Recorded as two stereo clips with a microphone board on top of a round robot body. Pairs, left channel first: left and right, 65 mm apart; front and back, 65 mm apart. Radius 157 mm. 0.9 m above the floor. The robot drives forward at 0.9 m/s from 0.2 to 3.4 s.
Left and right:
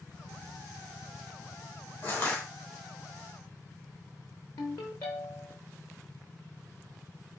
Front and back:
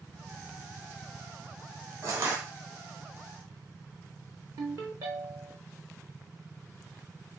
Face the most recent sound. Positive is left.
turn(degrees=130)